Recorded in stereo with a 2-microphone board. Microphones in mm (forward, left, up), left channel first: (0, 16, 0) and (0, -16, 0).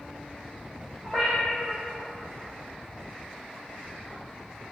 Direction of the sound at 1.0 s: 5° left (ahead or behind).